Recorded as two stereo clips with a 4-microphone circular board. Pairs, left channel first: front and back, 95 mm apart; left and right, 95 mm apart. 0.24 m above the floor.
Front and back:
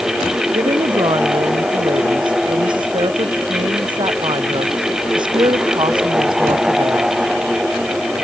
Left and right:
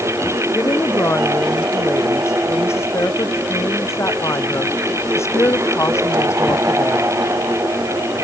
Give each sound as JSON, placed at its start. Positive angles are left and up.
{"t": 0.5, "sound": "a woman speaking", "azimuth_deg": 150}